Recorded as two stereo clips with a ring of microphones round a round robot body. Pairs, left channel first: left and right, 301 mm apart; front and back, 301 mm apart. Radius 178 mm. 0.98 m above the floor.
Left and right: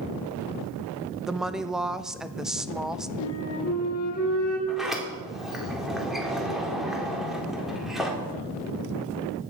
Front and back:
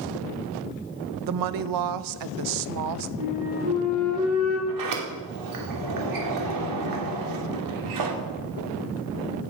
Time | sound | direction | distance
1.3 | a woman speaking | straight behind | 0.6 m
3.2 | a flute | 130° left | 7 m
4.7 | a sliding door | straight behind | 2.5 m